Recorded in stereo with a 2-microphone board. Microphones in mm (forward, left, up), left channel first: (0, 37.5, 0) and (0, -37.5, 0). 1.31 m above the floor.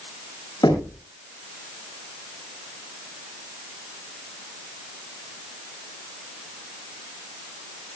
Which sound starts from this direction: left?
Knocking, at 0.6 s.